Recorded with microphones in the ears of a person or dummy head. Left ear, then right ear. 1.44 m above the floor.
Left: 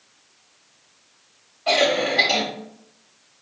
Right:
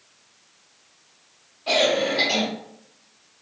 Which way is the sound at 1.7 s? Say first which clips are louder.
Left 1 dB; 30° left (ahead or behind).